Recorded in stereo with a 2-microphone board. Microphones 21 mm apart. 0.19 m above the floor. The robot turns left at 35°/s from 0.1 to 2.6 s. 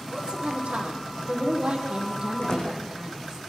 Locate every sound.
0.1 s a woman speaking: 70° right, 7 m; by 3.4 s 155° right, 7 m
2.4 s a door slam: 50° left (ahead or behind), 9.5 m; by 2.7 s 45° left (ahead or behind), 9.5 m